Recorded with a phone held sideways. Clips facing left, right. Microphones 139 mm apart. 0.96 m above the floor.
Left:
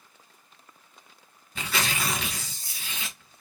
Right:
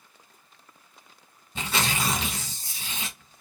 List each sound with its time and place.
1.6 s tearing paper: 25° right (ahead or behind), 0.9 m